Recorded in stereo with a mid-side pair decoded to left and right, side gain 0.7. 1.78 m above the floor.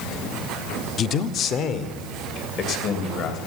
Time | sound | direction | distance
1.0 | a man speaking | 40° left | 0.6 m